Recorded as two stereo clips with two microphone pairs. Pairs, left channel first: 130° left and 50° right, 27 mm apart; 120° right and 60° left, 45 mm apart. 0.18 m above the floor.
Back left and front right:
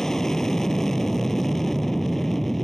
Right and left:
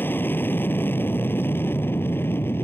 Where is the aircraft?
160° right; by 2.6 s 150° right.